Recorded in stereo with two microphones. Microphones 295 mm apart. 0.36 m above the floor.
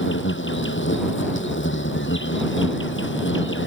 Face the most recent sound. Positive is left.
turn(degrees=40)  # may be behind; listen again after turning